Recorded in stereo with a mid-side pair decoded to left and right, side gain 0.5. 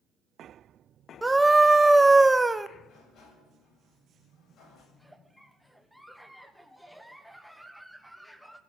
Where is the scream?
10° right, 1.0 m.